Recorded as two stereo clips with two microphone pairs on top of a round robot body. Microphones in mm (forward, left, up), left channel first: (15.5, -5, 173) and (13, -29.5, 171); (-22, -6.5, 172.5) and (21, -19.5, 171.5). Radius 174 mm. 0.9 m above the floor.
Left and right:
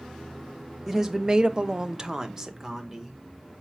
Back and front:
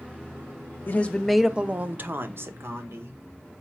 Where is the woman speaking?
165° right, 0.6 m; by 3.2 s 30° right, 1.4 m.